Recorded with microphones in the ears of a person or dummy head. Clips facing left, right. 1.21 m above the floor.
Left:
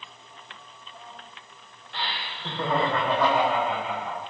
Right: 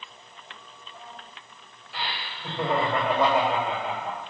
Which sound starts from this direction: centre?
Laughter, at 1.9 s.